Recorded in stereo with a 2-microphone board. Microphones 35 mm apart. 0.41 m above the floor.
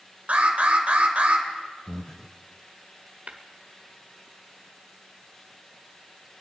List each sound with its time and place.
0.3 s an alarm: 45° right (ahead or behind), 2 m
1.9 s breathing: 15° left (ahead or behind), 0.5 m
3.3 s tapping: 40° right (ahead or behind), 1.1 m